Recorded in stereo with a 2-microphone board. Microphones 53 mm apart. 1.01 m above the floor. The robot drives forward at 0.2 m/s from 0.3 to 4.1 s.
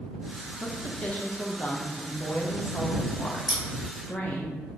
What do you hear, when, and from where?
0.6 s a woman speaking: 25° left (ahead or behind), 0.8 m; by 4.5 s 30° left (ahead or behind), 0.6 m
3.5 s scissors: 10° right (ahead or behind), 0.8 m